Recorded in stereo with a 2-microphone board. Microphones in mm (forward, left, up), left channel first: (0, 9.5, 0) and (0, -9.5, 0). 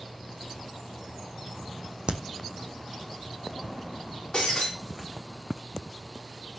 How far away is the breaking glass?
About 9.5 m.